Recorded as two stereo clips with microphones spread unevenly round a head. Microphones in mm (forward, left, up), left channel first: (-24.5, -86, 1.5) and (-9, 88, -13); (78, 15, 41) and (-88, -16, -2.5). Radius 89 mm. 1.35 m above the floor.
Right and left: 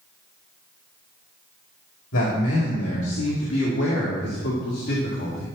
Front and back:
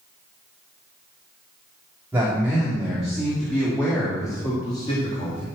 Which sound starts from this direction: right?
A man speaking, at 2.1 s.